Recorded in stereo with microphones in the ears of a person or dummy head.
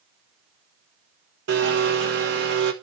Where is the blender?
65° right (ahead or behind), 1.4 m.